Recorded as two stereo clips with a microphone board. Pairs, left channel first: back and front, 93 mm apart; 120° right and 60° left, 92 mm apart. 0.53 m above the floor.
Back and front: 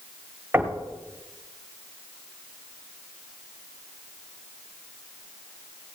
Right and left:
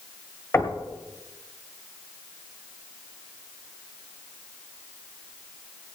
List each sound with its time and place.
0.5 s knocking: 60° right, 1.9 m